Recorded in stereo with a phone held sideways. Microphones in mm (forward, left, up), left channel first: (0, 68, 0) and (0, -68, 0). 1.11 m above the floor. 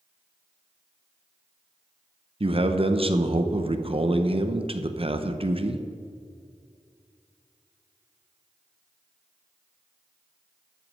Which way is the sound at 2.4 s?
40° right (ahead or behind).